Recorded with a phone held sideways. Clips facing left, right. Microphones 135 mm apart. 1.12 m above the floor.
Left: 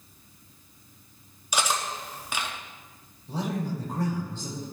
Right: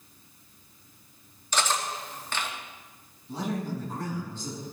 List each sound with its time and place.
1.5 s cutlery clinking: 10° left (ahead or behind), 0.9 m
3.3 s a man speaking: 85° left, 4 m